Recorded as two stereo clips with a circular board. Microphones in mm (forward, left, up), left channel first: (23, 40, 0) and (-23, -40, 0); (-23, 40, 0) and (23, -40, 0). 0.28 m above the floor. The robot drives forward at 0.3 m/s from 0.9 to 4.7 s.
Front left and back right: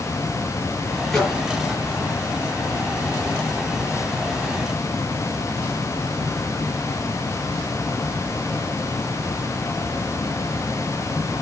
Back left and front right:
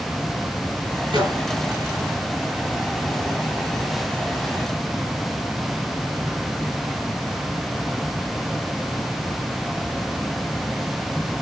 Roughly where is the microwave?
Ahead right.